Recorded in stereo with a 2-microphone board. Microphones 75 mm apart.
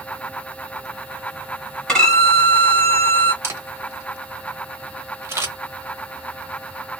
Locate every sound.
1.9 s a violin: 10° left (ahead or behind), 1.9 m
3.4 s a camera shutter: 35° right (ahead or behind), 1.2 m